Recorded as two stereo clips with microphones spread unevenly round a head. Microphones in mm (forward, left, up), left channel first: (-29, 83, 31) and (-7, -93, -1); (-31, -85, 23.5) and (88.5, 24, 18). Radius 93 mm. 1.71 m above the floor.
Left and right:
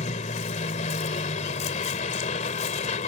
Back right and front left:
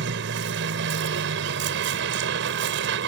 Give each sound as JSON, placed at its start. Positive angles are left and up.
{"t": 0.0, "sound": "a vehicle", "azimuth_deg": 45}